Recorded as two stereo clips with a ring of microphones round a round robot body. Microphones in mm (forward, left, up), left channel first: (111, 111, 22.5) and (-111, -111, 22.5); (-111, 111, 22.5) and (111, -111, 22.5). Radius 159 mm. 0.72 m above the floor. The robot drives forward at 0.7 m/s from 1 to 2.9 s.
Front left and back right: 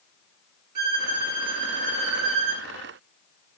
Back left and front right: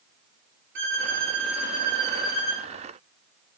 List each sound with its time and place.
0.8 s a violin: 100° right, 7.5 m; by 2.7 s 110° right, 8 m